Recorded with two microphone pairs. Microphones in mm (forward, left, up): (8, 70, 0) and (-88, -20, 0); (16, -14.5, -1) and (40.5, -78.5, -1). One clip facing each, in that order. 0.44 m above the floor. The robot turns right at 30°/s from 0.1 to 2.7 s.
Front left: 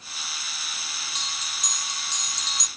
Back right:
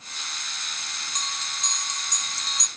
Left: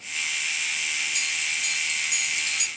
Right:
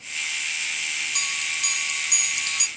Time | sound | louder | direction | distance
1.1 | a bell | back right 4 dB, even | 90° right | ?